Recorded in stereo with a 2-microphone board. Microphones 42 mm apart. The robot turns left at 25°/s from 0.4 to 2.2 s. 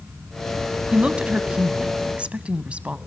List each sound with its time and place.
0.9 s a woman speaking: 60° right, 1.1 m; by 3.0 s 95° right, 1.1 m